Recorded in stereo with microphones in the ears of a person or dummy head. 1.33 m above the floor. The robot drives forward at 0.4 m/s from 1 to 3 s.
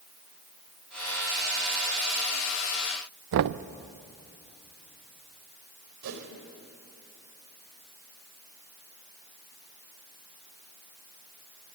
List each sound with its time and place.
3.3 s knocking: 60° right (ahead or behind), 0.6 m
6.0 s a whoosh: 70° right (ahead or behind), 3 m